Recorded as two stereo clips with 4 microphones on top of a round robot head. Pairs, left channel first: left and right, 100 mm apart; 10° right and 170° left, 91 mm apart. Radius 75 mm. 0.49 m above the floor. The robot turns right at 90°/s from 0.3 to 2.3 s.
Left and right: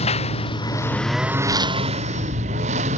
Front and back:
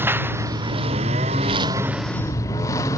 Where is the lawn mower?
105° left; by 3.0 s 75° right.